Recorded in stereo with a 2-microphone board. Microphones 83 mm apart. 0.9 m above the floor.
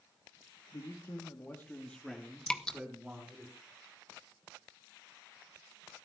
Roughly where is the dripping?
Centre.